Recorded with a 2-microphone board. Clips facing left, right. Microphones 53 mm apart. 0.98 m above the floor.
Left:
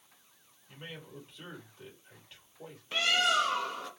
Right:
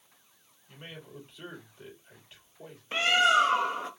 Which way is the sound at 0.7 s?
10° right (ahead or behind).